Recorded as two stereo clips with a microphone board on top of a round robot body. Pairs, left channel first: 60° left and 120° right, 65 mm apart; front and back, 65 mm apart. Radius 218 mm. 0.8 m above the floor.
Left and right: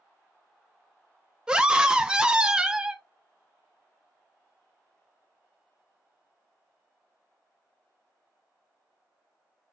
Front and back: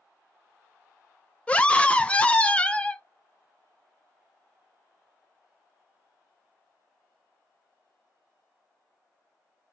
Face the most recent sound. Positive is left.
turn(degrees=-55)